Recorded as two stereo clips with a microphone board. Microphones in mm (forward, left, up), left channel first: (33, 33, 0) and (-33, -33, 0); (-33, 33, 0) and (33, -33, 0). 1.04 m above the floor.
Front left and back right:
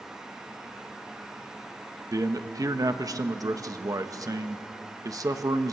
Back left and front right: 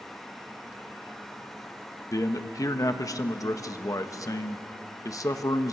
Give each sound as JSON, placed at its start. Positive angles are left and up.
{"t": 2.1, "sound": "a man speaking", "azimuth_deg": 180, "distance_m": 1.2}